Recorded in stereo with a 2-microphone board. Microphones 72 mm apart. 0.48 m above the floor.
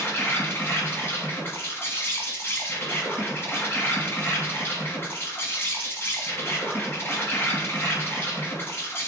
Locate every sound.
0.0 s an insect: 30° left (ahead or behind), 1.3 m